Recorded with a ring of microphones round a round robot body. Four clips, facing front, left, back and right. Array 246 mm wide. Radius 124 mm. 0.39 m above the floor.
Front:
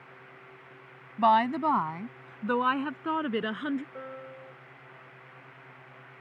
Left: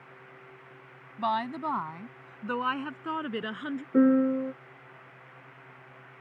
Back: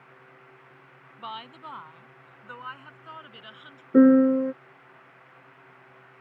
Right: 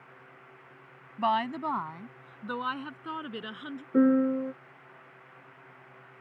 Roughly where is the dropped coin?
No dropped coin in this recording.